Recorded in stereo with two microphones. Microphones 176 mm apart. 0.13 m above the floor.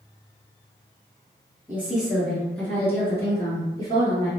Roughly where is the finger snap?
I don't hear a finger snap.